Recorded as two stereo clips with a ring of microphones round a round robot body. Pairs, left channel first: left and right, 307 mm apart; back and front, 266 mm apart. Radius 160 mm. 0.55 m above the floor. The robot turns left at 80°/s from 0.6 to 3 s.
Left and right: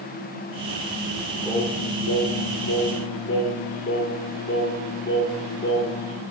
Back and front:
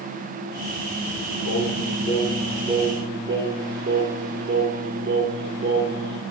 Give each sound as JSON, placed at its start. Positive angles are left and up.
{"t": 1.4, "sound": "singing", "azimuth_deg": 165, "distance_m": 2.5}